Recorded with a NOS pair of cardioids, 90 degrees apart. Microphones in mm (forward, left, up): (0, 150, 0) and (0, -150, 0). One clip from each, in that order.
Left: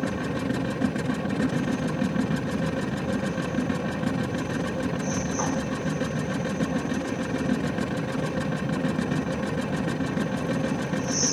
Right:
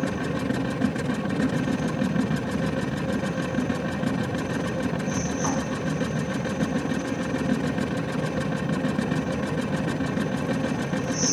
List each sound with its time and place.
0.0 s a machine running: 5° right, 1.3 m